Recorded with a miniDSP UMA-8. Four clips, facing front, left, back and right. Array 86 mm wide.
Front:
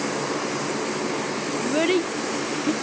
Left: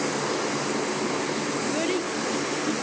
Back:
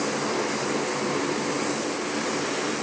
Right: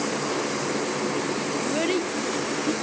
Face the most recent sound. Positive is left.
turn(degrees=-15)